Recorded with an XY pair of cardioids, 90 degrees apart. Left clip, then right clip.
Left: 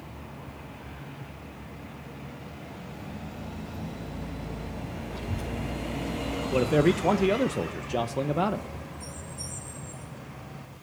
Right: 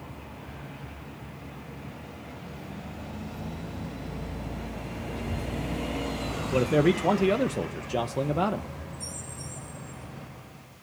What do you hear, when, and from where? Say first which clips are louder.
5.1 s a child speaking: right 1 dB; 55° left, 2 m; by 7.4 s 25° left, 0.5 m
6.5 s a man speaking: even; 5° left, 0.5 m